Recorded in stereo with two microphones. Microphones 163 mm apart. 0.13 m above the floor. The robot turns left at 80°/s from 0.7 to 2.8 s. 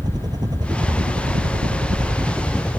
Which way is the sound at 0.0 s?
25° right.